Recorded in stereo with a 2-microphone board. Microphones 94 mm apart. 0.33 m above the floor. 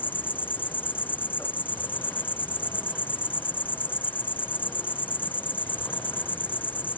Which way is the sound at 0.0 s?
20° left (ahead or behind).